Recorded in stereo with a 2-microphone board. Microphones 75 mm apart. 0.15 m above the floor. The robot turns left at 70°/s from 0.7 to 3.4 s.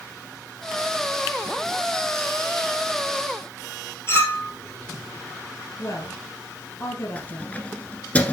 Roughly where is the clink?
Left.